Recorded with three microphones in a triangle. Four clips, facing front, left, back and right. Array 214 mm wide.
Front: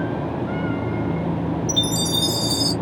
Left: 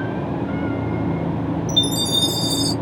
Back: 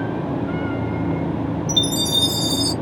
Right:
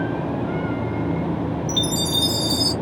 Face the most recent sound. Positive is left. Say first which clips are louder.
# left 1 dB, back 1 dB
turn(degrees=-100)